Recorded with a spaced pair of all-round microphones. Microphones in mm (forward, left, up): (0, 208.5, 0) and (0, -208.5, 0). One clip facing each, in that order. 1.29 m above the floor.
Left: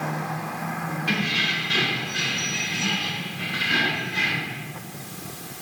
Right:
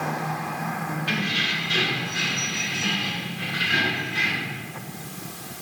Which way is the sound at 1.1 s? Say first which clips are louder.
Left 4 dB; 60° left (ahead or behind).